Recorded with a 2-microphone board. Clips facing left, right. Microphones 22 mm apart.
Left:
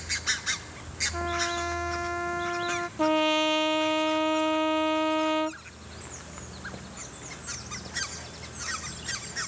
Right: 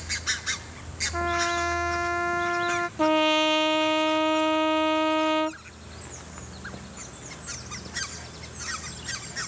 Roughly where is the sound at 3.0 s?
Centre.